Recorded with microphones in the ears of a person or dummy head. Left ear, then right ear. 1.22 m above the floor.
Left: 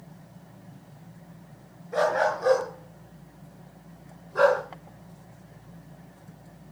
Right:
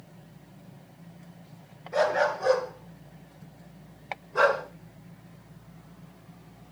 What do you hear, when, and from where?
1.9 s a dog barking: 10° right (ahead or behind), 5.5 m; by 4.6 s 25° right (ahead or behind), 3.5 m